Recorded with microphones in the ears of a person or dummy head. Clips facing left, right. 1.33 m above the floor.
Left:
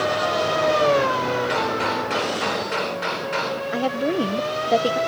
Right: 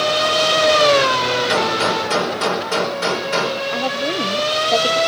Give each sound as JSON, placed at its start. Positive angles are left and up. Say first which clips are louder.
{"t": 1.5, "sound": "a gunshot", "louder": "right 4 dB", "side_deg": -50, "distance_m": 4.5}
{"t": 3.7, "sound": "a woman speaking", "louder": "even", "side_deg": 10, "distance_m": 1.1}